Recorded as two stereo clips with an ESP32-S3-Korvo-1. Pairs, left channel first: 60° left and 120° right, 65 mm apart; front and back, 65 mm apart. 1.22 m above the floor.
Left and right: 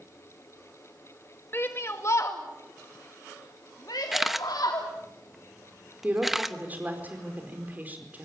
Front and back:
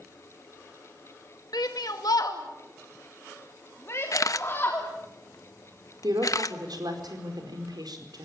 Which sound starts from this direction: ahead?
A shout, at 1.5 s.